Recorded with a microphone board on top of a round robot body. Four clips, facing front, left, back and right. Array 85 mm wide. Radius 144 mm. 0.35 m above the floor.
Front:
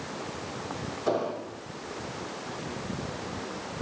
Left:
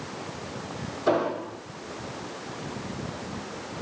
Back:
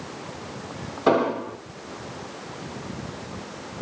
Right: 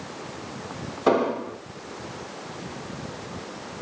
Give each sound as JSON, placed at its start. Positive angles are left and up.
{"t": 1.1, "sound": "an explosion", "azimuth_deg": -140, "distance_m": 5.0}